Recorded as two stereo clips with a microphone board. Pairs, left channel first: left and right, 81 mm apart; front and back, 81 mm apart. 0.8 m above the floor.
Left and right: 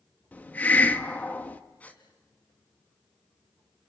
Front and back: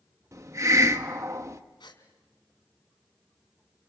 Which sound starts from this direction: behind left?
A hiss, at 0.3 s.